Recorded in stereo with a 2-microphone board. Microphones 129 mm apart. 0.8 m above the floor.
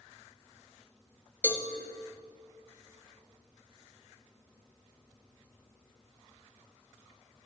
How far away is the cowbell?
About 0.7 m.